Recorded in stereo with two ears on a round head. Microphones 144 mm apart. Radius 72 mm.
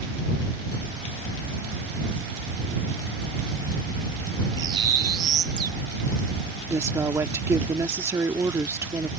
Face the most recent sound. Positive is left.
turn(degrees=-15)  # may be behind; listen again after turning